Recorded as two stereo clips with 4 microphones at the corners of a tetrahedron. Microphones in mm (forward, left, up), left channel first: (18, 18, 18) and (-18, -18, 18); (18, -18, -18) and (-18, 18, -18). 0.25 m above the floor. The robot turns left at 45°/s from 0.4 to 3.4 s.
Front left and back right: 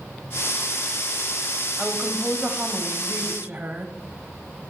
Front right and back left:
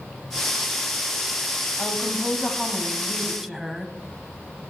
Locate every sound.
1.8 s a woman speaking: 75° right, 1.3 m; by 3.9 s 145° right, 1.3 m